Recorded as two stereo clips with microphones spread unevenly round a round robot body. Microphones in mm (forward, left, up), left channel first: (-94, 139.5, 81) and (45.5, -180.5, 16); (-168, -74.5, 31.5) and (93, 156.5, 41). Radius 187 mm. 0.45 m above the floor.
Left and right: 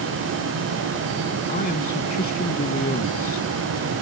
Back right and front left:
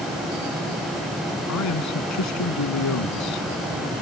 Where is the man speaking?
Straight behind.